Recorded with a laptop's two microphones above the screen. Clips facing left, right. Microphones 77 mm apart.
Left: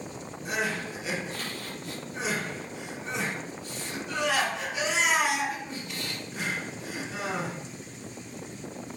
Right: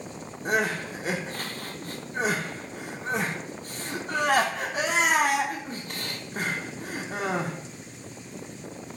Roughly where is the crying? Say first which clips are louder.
Right 5 dB; right.